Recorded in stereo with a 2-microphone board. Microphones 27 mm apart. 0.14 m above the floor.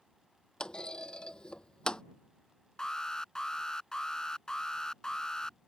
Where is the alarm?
20° left (ahead or behind).